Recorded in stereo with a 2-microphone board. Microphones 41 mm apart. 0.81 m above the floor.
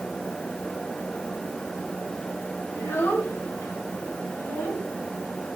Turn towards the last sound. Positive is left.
turn(degrees=75)  # may be behind; listen again after turning